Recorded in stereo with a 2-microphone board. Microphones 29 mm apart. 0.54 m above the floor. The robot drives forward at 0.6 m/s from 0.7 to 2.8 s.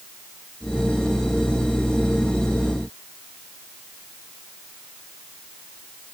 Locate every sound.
Only background noise.